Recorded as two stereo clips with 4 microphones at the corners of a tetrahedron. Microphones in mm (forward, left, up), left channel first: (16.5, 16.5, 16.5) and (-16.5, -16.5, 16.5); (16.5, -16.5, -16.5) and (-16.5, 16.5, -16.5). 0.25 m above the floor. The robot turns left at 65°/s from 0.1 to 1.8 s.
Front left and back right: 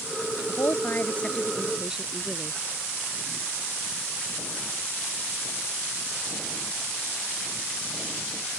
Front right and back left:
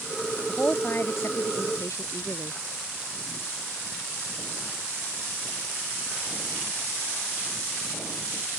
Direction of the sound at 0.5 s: 25° left.